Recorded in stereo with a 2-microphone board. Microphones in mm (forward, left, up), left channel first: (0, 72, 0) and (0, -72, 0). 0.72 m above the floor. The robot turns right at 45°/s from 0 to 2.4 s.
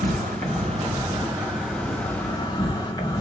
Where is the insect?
80° right, 1.7 m; by 3.2 s 30° left, 1.7 m.